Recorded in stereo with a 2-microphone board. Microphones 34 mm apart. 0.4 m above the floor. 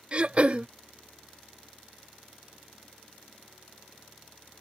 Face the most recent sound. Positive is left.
turn(degrees=-35)  # may be behind; listen again after turning